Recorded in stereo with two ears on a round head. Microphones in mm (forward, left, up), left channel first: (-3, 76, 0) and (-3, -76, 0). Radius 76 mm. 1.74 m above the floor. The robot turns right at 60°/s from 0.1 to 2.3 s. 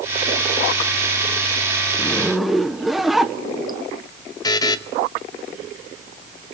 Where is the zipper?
20° left (ahead or behind), 1.1 m; by 3.8 s centre (ahead or behind), 1.1 m.